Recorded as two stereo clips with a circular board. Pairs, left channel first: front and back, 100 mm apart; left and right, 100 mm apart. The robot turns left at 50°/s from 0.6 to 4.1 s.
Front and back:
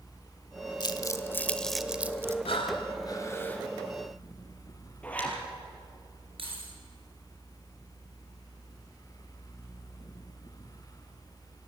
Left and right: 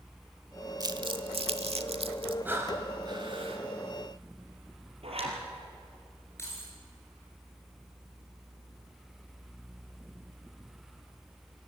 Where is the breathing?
20° right, 2.5 m; by 3.6 s 80° right, 2.5 m.